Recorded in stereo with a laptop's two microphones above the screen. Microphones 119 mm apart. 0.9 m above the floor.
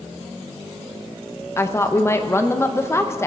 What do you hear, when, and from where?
1.6 s a woman speaking: 25° left (ahead or behind), 0.7 m